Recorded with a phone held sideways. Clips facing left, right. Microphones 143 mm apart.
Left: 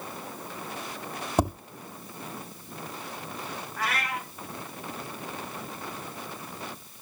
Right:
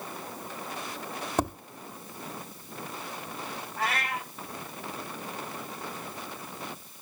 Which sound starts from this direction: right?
A cat meowing, at 3.8 s.